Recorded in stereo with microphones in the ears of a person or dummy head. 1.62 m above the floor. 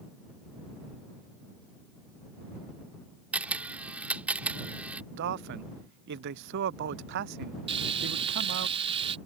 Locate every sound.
3.3 s a camera shutter: 10° right (ahead or behind)
5.1 s a man speaking: 60° right (ahead or behind)
7.7 s frying: 25° right (ahead or behind)